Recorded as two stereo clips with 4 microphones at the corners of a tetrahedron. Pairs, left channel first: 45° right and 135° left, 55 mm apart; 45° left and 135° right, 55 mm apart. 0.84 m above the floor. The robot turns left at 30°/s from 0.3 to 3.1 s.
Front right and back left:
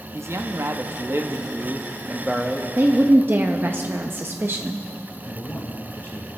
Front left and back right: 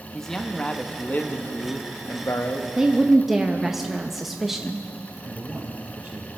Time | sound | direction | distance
0.1 | a man speaking | 125° left | 0.9 m
2.8 | a woman speaking | 150° left | 0.6 m
5.2 | a man speaking | 95° right | 1.9 m